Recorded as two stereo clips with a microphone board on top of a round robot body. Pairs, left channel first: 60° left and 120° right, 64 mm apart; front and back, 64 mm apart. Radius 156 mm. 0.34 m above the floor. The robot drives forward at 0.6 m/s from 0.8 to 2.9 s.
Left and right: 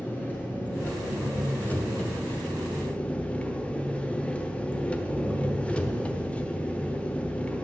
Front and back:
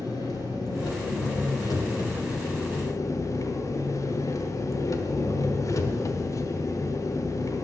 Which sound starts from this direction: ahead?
An engine running, at 0.0 s.